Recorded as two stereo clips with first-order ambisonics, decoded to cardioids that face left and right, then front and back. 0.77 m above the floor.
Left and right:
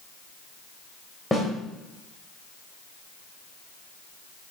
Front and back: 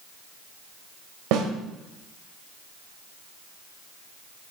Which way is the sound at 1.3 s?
175° left.